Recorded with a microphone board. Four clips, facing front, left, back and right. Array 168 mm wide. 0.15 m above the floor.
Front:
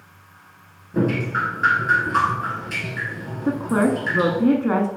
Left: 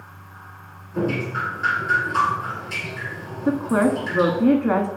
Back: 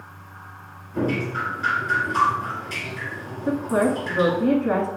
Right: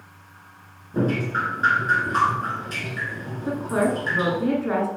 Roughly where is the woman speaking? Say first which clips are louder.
Left 4 dB, front 1 dB; ahead left.